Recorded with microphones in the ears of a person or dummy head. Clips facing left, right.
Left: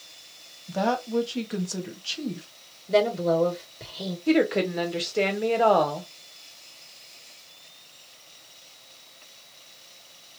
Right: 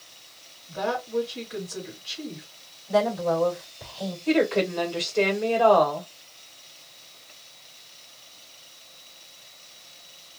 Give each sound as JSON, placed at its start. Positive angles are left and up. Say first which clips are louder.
{"t": 0.7, "sound": "a woman speaking", "louder": "left 3 dB", "side_deg": 75, "distance_m": 1.5}
{"t": 2.9, "sound": "a woman speaking", "louder": "left 1 dB", "side_deg": 45, "distance_m": 1.8}
{"t": 4.3, "sound": "a woman speaking", "louder": "left 1 dB", "side_deg": 20, "distance_m": 1.0}